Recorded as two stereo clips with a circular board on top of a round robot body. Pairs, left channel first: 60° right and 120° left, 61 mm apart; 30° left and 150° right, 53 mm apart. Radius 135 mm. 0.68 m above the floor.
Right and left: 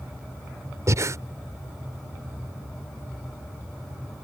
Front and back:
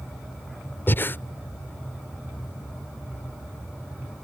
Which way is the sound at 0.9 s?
80° left.